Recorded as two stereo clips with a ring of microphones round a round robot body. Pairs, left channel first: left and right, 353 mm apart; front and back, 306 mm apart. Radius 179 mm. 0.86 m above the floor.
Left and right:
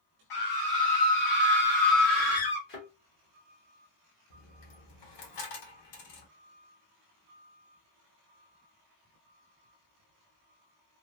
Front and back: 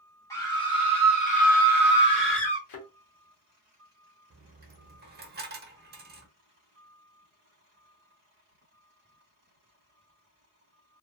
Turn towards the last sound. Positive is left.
turn(degrees=120)